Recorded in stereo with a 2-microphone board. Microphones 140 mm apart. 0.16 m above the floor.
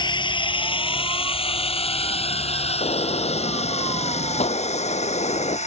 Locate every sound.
0.0 s a drone: 35° left (ahead or behind); by 5.7 s 55° left (ahead or behind)
2.8 s a gunshot: 50° left (ahead or behind)